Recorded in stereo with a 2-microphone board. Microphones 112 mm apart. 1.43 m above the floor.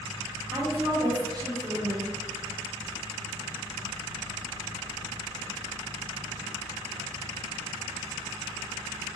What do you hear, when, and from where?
0.5 s a woman speaking: 30° right (ahead or behind), 0.8 m